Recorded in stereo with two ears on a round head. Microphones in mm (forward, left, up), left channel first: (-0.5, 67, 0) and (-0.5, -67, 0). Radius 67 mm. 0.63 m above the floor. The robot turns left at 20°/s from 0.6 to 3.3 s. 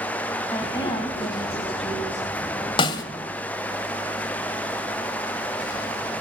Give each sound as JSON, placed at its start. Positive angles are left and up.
{"t": 0.5, "sound": "a woman speaking", "azimuth_deg": 155, "distance_m": 3.5}
{"t": 2.8, "sound": "a snare drum", "side_deg": 35, "distance_m": 1.5}